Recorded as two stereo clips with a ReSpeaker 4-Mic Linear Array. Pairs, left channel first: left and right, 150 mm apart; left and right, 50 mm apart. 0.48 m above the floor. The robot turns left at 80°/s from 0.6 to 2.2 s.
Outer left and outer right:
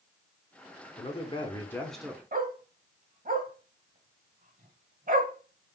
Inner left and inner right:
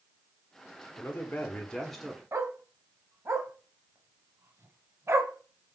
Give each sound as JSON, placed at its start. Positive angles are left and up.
{"t": 1.0, "sound": "a man speaking", "azimuth_deg": 80, "distance_m": 1.1}
{"t": 2.3, "sound": "a dog barking", "side_deg": -65, "distance_m": 0.9}